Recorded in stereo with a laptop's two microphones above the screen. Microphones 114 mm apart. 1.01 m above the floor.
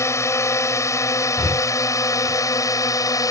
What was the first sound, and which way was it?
A drone, 25° left (ahead or behind).